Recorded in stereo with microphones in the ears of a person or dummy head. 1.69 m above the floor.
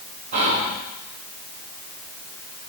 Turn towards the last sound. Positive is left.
turn(degrees=-35)  # may be behind; listen again after turning